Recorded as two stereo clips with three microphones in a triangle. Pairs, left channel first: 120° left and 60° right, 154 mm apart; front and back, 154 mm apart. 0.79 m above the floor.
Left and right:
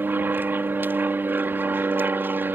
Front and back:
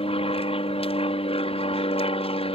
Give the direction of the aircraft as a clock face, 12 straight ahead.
12 o'clock.